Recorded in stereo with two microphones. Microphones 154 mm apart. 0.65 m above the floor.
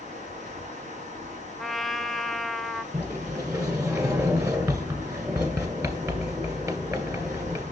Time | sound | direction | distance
0.0 | running water | 55° right (ahead or behind) | 3 m
1.6 | a trumpet | centre (ahead or behind) | 0.6 m
2.9 | a sliding door | 20° right (ahead or behind) | 1.8 m